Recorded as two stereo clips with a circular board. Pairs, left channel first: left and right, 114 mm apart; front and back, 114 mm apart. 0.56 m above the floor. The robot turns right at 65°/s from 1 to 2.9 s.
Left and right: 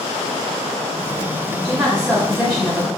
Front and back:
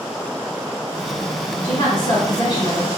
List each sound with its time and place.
1.6 s a woman speaking: 50° right, 1.2 m; by 2.9 s 30° left, 1.2 m